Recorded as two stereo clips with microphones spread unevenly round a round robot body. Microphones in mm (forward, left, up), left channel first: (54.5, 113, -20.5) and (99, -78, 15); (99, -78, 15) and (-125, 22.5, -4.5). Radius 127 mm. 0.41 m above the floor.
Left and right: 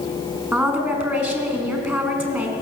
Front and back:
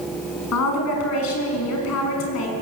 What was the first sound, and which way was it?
A woman speaking, 5° left.